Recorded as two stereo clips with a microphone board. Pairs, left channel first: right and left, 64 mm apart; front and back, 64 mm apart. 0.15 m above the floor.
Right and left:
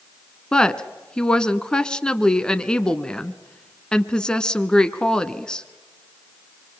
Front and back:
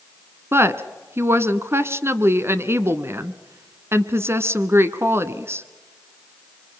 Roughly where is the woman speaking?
Behind.